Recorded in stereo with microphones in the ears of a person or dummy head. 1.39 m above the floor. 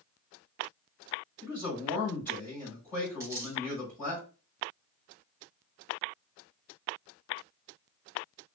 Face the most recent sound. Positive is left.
turn(degrees=-15)  # may be behind; listen again after turning